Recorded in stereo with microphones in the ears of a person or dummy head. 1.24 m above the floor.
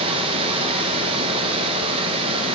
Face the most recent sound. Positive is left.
turn(degrees=-30)  # may be behind; listen again after turning